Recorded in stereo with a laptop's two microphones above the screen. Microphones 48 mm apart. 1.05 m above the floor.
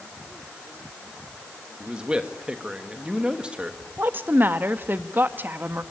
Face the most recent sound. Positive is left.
turn(degrees=-45)  # may be behind; listen again after turning